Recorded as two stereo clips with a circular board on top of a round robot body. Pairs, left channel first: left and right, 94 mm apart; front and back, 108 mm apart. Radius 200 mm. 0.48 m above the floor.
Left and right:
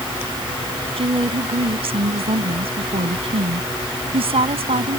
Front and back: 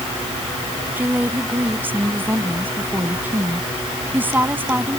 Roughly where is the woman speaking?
Right.